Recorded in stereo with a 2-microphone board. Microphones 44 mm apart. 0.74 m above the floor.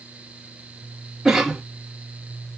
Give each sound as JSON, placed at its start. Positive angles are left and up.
{"t": 1.2, "sound": "a cough", "side_deg": -5, "distance_m": 1.1}